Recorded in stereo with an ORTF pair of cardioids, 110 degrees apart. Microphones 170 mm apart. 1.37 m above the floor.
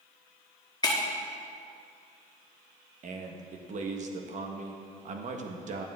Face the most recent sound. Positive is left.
turn(degrees=-45)